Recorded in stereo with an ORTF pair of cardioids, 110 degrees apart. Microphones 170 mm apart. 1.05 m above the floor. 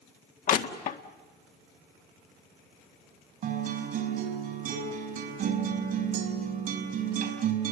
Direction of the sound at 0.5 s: 50° left.